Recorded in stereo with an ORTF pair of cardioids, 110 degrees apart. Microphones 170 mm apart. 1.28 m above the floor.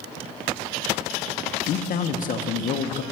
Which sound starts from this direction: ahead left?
A man speaking, at 1.7 s.